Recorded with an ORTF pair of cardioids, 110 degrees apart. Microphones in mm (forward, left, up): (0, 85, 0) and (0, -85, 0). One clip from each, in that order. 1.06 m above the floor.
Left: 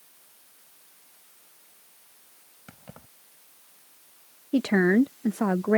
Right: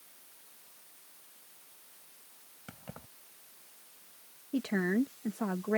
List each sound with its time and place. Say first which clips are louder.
2.7 s keys jangling: even; 5° right
4.5 s a woman speaking: left 10 dB; 45° left